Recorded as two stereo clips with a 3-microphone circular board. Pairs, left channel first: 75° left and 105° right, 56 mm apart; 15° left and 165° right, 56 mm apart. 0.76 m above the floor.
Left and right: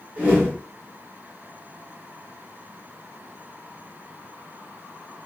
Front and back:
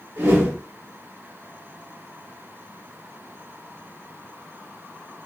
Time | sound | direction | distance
0.2 | a whoosh | 165° right | 1.2 m